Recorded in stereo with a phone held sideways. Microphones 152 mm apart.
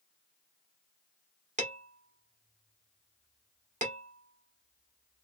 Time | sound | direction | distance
1.6 | dishes clattering | 55° right (ahead or behind) | 1.3 m